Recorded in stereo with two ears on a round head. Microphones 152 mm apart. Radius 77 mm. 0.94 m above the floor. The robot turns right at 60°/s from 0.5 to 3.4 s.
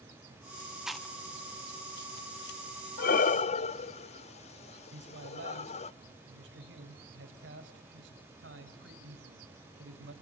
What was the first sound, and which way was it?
Chewing, 5° right (ahead or behind).